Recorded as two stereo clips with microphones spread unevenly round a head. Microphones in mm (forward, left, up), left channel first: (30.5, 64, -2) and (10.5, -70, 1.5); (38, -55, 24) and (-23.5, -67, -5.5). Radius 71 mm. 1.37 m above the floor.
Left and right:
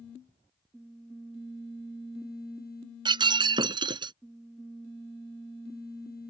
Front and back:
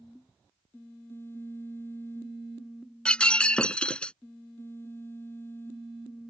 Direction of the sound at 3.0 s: 45° right.